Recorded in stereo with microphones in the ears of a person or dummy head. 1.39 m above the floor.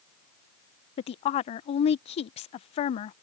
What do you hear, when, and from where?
1.0 s a woman speaking: 40° left (ahead or behind)